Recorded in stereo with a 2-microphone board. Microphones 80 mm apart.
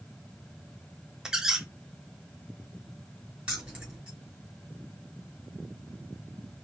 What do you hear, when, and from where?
1.2 s a squeak: 5° right (ahead or behind), 0.7 m
3.5 s keys jangling: 10° right (ahead or behind), 2 m